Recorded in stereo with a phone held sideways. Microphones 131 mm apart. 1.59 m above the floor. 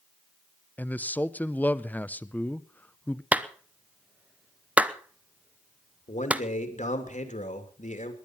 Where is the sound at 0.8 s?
10° left (ahead or behind), 0.5 m.